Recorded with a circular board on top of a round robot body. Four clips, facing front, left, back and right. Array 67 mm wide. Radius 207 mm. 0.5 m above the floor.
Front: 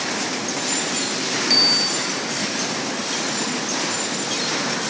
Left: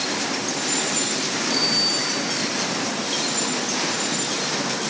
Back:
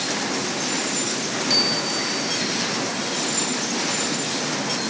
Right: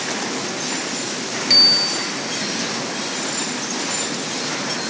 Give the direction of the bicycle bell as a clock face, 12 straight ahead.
2 o'clock.